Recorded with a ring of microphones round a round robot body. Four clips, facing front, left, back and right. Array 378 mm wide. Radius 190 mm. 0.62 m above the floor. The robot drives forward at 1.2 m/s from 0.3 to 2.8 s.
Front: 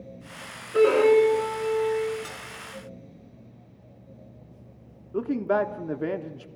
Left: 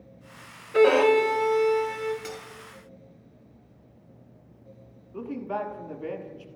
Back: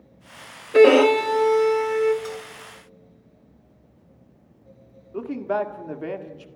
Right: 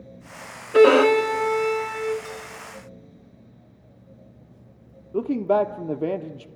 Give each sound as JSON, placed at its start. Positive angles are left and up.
{"t": 0.7, "sound": "a violin", "azimuth_deg": -145, "distance_m": 0.6}
{"t": 2.2, "sound": "cutlery clinking", "azimuth_deg": 55, "distance_m": 4.5}
{"t": 5.1, "sound": "a man speaking", "azimuth_deg": -65, "distance_m": 1.4}